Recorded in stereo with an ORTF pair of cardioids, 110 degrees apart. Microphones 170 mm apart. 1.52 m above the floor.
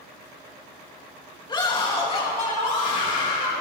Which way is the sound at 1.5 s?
25° left.